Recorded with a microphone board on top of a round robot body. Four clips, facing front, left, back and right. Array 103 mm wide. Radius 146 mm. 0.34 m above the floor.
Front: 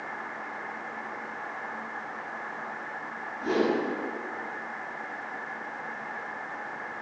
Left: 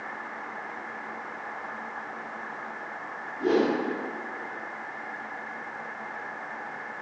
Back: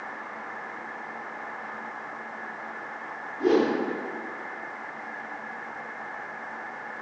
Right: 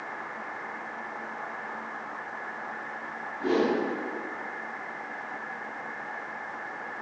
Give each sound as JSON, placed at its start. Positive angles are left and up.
{"t": 3.4, "sound": "a whoosh", "azimuth_deg": 150, "distance_m": 2.5}